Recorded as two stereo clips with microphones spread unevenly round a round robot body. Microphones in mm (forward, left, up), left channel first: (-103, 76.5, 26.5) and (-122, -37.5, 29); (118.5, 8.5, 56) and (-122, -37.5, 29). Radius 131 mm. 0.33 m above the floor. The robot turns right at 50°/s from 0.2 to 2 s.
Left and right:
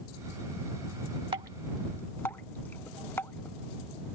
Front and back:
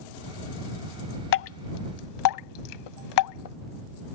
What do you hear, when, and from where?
1.3 s dripping: 35° right; by 3.5 s straight ahead